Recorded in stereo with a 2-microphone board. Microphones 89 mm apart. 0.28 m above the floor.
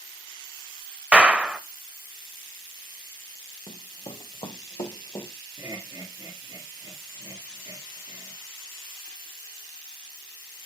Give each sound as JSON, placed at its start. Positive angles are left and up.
{"t": 1.1, "sound": "a clap", "side_deg": -15, "distance_m": 0.7}
{"t": 3.7, "sound": "running footsteps", "side_deg": 80, "distance_m": 1.0}
{"t": 5.6, "sound": "laughter", "side_deg": -40, "distance_m": 3.0}